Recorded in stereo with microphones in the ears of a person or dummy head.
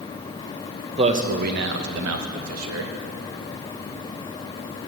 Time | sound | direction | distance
1.0 | a man speaking | 35° right (ahead or behind) | 1.2 m